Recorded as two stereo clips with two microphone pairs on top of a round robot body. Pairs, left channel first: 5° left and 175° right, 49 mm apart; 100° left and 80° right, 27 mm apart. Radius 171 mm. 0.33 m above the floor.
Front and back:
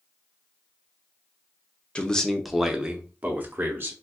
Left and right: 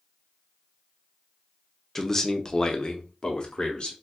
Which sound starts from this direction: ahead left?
A man speaking, at 1.9 s.